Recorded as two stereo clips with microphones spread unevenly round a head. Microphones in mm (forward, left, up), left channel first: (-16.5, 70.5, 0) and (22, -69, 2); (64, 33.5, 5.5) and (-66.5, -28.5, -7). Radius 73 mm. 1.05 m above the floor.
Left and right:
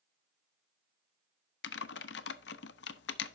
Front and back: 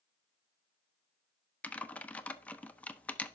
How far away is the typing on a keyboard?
About 0.5 m.